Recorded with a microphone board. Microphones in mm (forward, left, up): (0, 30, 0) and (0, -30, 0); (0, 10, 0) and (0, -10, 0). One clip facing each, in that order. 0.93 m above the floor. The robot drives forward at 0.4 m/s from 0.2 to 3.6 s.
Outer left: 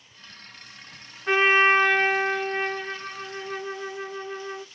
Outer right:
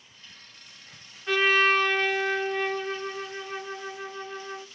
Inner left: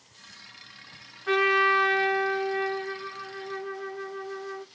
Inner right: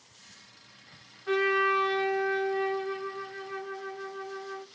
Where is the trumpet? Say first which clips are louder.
Outer left 3 dB, inner left 4 dB; 30° left (ahead or behind), 0.5 m; by 4.7 s 15° left (ahead or behind), 1.1 m.